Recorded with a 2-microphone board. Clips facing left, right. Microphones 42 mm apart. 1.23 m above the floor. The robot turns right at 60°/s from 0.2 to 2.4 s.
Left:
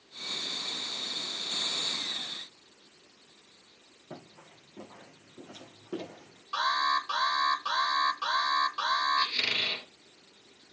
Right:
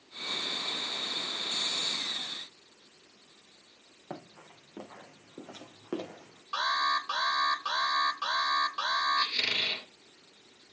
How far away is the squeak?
About 1.7 m.